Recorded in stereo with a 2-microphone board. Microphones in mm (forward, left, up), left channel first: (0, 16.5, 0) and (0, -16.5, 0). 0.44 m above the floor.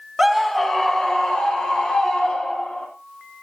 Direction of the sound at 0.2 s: 10° right (ahead or behind).